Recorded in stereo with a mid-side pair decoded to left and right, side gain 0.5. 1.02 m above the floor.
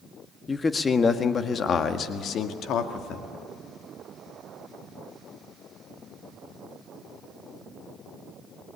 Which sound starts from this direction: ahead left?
A man speaking, at 0.5 s.